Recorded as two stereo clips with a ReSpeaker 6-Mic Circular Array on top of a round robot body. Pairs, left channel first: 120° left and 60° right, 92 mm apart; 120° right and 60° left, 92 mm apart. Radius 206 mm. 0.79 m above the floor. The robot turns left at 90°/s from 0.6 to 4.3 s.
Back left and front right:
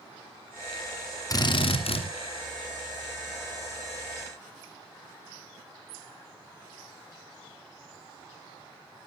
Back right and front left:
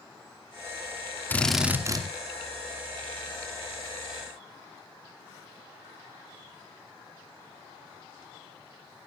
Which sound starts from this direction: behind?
A drill, at 1.3 s.